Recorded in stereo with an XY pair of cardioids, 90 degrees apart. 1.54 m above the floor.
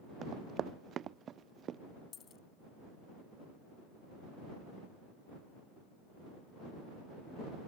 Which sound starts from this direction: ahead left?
A dropped coin, at 2.1 s.